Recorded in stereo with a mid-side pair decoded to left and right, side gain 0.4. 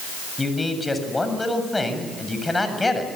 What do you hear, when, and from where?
0.4 s a man speaking: 20° left, 7.5 m